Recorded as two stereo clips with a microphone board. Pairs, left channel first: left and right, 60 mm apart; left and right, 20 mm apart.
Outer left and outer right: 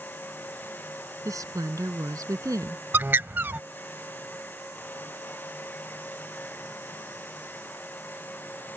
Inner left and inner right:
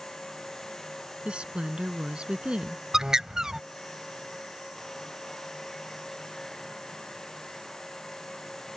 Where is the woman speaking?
70° right (ahead or behind).